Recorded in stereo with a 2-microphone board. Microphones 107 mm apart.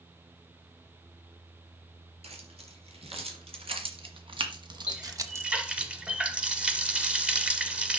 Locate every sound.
2.2 s keys jangling: 75° right (ahead or behind), 3.5 m; by 5.5 s 20° right (ahead or behind), 1.0 m
4.9 s a running tap: 10° right (ahead or behind), 1.1 m